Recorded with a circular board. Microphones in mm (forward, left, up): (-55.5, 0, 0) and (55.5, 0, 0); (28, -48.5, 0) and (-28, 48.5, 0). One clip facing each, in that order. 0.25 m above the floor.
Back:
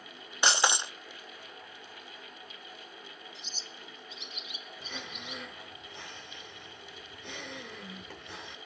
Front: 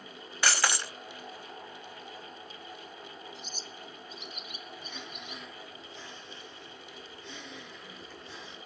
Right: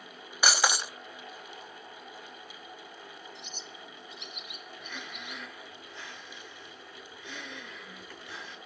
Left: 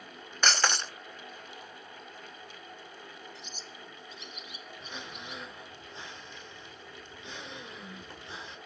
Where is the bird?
40° right, 0.5 m.